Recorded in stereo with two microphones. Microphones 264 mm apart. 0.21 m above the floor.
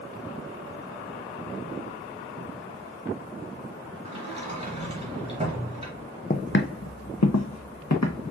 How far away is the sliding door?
About 2 m.